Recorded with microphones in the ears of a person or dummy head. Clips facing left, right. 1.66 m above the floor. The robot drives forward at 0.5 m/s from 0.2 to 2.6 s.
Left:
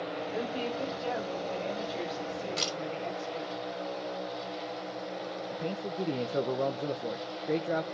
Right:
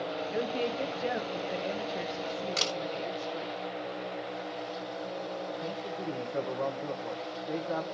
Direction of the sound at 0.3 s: 30° right (ahead or behind).